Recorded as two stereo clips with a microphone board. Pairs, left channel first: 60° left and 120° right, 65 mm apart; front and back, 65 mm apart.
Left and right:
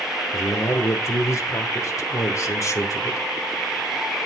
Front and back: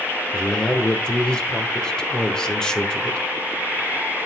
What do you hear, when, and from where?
0.3 s a man speaking: 75° left, 1.2 m